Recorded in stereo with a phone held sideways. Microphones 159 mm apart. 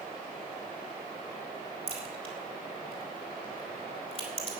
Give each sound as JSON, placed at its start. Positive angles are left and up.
{"t": 1.9, "sound": "a crack", "side_deg": -40, "distance_m": 3.5}